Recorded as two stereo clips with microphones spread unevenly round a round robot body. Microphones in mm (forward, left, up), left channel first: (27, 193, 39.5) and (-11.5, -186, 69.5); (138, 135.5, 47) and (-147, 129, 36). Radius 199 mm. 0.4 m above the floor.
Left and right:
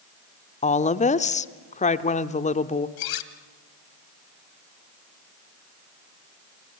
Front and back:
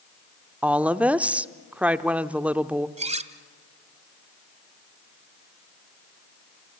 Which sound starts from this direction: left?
A woman speaking, at 0.6 s.